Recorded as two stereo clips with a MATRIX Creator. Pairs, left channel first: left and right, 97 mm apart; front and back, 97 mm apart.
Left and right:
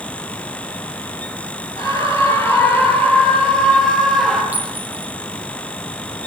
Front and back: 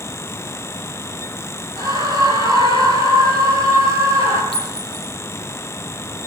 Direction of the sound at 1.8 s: 35° left.